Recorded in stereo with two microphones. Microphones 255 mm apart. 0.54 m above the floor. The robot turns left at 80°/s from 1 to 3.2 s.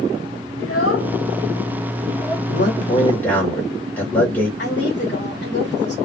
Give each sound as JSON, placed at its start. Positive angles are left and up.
{"t": 0.6, "sound": "a child speaking", "side_deg": 65, "distance_m": 1.3}
{"t": 2.5, "sound": "a man speaking", "azimuth_deg": 65, "distance_m": 1.5}
{"t": 4.6, "sound": "a woman speaking", "side_deg": 45, "distance_m": 1.4}